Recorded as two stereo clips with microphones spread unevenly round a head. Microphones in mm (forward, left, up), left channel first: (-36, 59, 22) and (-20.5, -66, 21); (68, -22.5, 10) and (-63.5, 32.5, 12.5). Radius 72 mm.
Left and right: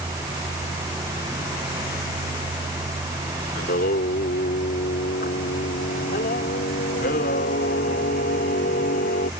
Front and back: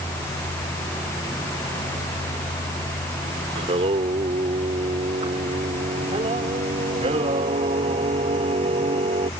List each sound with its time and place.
3.5 s singing: 105° left